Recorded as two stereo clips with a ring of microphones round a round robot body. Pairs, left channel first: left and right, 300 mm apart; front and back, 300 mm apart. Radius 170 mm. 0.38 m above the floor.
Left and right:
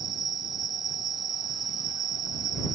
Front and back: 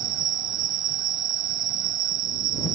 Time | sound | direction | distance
0.0 | an insect | 160° right | ?